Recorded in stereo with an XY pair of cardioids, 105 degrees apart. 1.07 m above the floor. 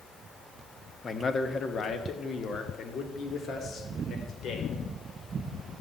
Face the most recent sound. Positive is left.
turn(degrees=60)